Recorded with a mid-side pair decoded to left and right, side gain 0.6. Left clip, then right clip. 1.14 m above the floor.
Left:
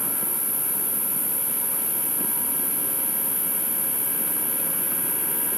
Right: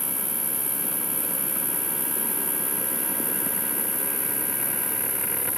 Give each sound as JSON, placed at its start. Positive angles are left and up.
{"t": 0.0, "sound": "an insect", "azimuth_deg": 5, "distance_m": 6.0}